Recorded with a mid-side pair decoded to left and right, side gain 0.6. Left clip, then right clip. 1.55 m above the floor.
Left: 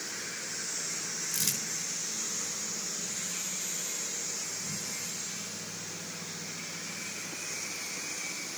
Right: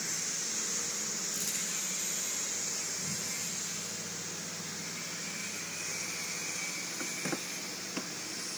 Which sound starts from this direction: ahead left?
Crumpling, at 1.3 s.